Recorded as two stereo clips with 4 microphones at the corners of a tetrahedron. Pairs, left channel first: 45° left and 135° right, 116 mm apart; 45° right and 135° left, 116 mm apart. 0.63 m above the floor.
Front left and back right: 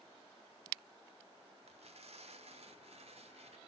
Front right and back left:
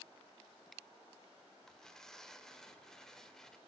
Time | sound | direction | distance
1.7 | tearing paper | 130° right | 1.8 m